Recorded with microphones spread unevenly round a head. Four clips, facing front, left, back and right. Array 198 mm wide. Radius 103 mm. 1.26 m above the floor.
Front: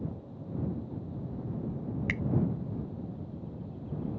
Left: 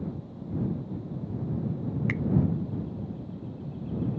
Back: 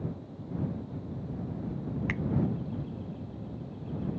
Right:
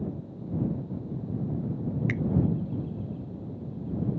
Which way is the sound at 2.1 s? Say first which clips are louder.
Even, back 1 dB; 30° right.